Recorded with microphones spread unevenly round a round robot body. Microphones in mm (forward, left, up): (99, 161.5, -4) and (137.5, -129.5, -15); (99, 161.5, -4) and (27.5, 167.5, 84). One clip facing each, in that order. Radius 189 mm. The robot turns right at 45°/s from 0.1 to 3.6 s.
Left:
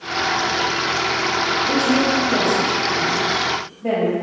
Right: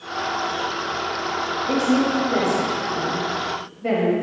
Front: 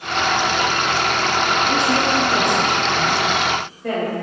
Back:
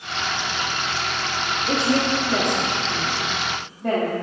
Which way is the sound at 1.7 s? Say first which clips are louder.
Even, front 2 dB; 165° left.